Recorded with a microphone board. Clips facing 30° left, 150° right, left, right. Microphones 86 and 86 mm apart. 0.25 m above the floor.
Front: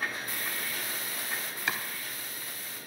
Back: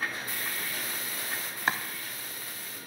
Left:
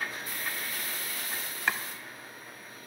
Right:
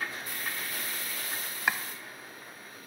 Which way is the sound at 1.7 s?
165° right.